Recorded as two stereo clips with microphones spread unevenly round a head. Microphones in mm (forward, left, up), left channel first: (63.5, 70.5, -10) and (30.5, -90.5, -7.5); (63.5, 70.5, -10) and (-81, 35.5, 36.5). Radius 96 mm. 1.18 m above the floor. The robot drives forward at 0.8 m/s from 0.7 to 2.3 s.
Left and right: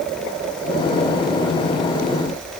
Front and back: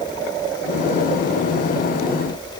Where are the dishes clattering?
I don't hear dishes clattering.